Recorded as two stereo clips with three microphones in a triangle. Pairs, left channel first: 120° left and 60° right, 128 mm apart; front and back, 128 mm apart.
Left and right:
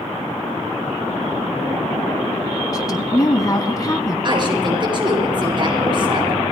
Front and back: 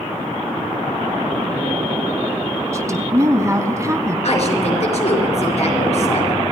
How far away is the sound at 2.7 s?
About 1.1 m.